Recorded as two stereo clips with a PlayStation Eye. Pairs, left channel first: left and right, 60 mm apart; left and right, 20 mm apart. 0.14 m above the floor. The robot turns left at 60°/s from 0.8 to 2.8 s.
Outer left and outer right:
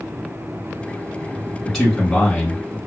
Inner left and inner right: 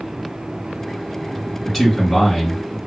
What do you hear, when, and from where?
1.6 s a man speaking: 5° left (ahead or behind), 1.2 m; by 2.8 s 25° left (ahead or behind), 1.2 m